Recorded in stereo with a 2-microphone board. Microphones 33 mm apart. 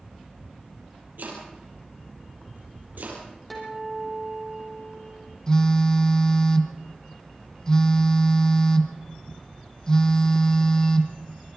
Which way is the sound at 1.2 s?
75° right (ahead or behind).